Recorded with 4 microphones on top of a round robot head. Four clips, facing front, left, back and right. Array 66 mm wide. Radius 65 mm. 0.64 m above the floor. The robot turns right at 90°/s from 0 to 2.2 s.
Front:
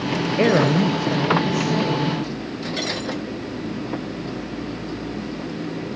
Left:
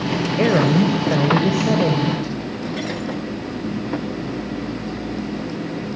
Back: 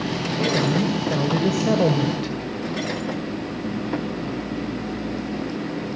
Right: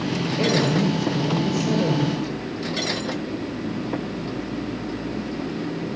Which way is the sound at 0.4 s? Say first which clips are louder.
Left 5 dB, front 5 dB; 25° left.